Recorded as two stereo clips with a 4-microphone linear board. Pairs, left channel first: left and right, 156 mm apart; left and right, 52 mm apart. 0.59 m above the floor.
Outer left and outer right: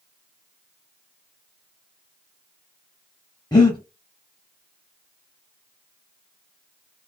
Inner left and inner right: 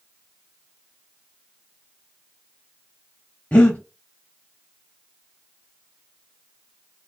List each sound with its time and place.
3.5 s breathing: 25° left (ahead or behind), 0.8 m